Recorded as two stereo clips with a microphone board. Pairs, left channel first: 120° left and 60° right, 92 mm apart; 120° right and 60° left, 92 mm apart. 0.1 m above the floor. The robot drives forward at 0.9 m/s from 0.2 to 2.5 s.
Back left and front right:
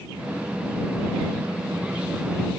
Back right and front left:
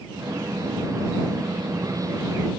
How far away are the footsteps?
No footsteps in this recording.